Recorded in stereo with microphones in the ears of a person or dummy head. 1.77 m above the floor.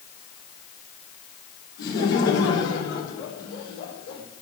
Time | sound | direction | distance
1.8 | laughter | 60° left (ahead or behind) | 5.5 m